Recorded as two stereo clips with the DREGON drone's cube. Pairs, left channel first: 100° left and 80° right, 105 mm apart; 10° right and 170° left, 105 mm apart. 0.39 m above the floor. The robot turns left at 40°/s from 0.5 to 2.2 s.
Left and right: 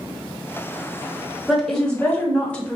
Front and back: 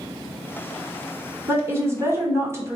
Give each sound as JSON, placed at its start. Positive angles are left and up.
{"t": 1.5, "sound": "a woman speaking", "azimuth_deg": -175, "distance_m": 1.0}